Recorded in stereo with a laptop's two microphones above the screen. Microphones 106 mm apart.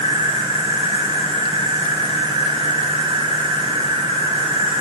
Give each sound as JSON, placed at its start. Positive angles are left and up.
{"t": 0.0, "sound": "an insect", "side_deg": -50, "distance_m": 1.3}